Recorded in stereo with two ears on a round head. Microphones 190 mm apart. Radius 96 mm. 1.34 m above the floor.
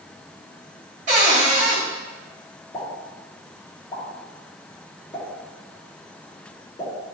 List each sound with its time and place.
1.1 s a cupboard door: 35° right (ahead or behind), 1.7 m
2.7 s a pop: 20° left (ahead or behind), 2 m